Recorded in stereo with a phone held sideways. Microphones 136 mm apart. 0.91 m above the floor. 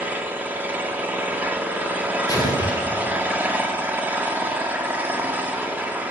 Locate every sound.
0.0 s an engine running: 15° right (ahead or behind), 1.6 m
2.3 s an explosion: 30° left (ahead or behind), 2.5 m